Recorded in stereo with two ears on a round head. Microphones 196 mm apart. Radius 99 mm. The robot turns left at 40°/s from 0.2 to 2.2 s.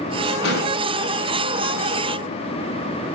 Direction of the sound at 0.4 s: 55° left (ahead or behind).